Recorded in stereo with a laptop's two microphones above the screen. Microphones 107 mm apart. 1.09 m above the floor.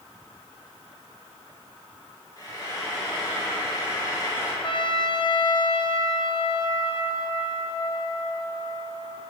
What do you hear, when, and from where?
2.4 s frying: 35° left (ahead or behind), 1.8 m
4.6 s a trumpet: 50° left (ahead or behind), 0.5 m